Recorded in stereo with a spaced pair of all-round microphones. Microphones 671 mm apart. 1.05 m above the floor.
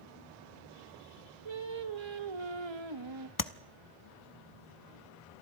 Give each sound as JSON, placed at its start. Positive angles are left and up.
{"t": 1.4, "sound": "singing", "side_deg": -40, "distance_m": 1.1}
{"t": 3.4, "sound": "tapping", "side_deg": 30, "distance_m": 0.8}